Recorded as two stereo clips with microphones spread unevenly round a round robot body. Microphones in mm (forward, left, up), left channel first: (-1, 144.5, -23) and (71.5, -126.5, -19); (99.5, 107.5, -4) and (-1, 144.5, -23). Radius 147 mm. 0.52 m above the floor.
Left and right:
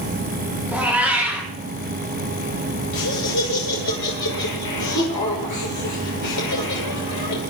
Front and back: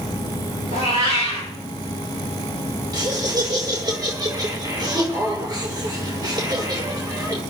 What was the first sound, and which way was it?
A cat meowing, 160° right.